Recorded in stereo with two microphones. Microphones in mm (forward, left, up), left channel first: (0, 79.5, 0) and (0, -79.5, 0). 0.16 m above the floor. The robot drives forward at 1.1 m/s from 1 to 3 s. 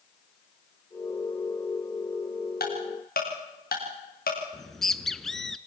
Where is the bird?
Centre (ahead or behind), 0.6 m.